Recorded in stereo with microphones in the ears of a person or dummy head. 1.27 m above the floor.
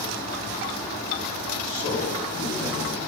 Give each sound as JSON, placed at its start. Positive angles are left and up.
{"t": 1.6, "sound": "a man speaking", "side_deg": 60, "distance_m": 6.0}